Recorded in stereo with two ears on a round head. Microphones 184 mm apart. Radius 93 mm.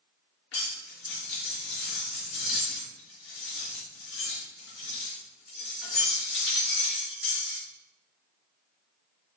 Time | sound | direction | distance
0.5 | cutlery clinking | 75° left (ahead or behind) | 3 m